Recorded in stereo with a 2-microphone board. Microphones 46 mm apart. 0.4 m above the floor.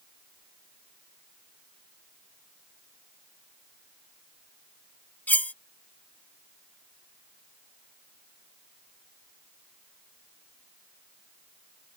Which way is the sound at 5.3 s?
40° left (ahead or behind).